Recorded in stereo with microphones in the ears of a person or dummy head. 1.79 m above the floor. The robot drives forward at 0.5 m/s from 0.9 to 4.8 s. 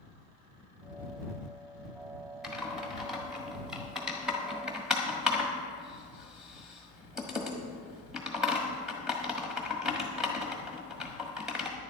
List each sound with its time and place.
2.4 s typing on a keyboard: 5° right (ahead or behind), 1.9 m